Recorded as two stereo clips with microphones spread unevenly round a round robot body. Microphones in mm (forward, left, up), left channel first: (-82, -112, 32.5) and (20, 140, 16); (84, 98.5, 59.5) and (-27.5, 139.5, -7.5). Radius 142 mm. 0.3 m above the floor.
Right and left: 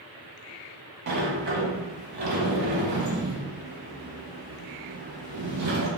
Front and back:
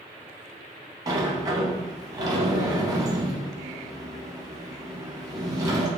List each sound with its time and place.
1.1 s a sliding door: 115° left, 0.9 m